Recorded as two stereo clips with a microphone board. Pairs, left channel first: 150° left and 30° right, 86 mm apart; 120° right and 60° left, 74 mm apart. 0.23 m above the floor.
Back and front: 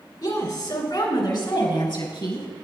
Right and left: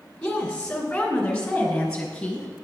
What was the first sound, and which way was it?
A woman speaking, 170° left.